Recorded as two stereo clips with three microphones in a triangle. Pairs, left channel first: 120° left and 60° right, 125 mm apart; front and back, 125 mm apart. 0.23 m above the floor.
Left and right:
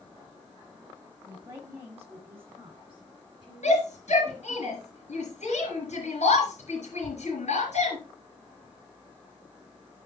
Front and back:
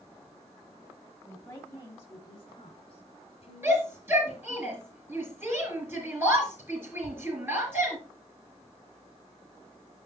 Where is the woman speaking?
60° right, 1.3 m; by 4.6 s 20° left, 2.5 m.